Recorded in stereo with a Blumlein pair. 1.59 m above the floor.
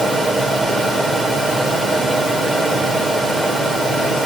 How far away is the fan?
About 2.5 m.